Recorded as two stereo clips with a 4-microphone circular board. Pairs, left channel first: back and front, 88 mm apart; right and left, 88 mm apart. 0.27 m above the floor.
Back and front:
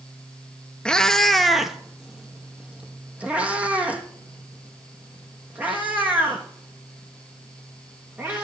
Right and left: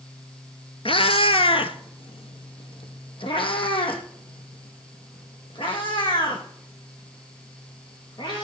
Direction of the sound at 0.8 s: 100° right.